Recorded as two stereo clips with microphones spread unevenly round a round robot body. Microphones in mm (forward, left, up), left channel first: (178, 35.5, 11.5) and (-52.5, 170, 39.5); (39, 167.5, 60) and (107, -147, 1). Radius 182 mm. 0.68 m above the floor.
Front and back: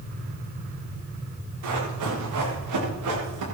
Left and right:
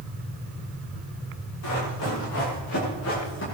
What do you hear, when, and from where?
1.6 s running footsteps: 150° left, 8 m; by 3.4 s 160° left, 7.5 m